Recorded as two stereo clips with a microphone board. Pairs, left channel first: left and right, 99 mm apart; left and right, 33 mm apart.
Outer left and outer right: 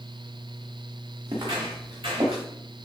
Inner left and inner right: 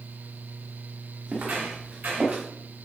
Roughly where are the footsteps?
Right.